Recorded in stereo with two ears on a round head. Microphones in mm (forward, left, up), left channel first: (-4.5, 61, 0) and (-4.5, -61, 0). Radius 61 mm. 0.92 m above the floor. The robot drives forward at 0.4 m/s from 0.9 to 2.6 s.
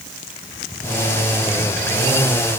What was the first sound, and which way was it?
Only background noise.